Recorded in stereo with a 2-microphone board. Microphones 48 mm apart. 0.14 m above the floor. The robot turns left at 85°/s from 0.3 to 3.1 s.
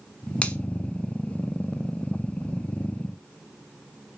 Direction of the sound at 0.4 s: 25° left (ahead or behind).